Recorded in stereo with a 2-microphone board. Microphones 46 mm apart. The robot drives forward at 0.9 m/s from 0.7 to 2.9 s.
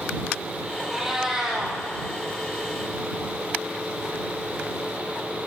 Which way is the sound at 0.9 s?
10° right (ahead or behind).